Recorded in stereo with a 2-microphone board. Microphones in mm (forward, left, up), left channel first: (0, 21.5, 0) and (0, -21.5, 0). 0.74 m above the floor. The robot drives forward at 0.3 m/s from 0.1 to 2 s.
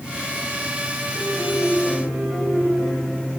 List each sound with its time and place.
1.1 s a piano: 40° right (ahead or behind), 5.5 m